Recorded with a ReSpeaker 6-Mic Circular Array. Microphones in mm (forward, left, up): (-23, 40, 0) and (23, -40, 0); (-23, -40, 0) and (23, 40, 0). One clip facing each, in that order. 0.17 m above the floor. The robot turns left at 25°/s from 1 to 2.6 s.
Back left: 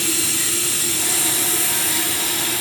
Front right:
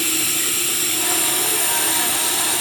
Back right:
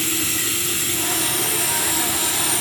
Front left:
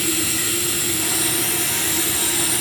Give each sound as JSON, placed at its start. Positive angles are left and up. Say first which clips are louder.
{"t": 0.0, "sound": "running water", "louder": "even, front left 2 dB", "azimuth_deg": -20, "distance_m": 3.0}